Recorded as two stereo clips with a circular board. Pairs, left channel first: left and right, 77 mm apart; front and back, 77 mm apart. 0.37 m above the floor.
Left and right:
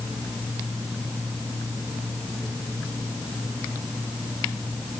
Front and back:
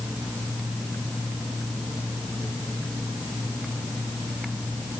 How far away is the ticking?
I don't hear ticking.